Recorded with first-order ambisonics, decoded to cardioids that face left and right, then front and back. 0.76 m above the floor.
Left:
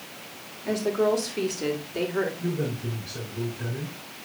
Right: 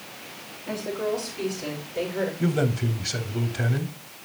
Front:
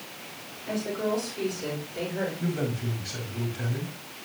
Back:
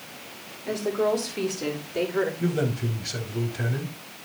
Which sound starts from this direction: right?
A man speaking, at 2.4 s.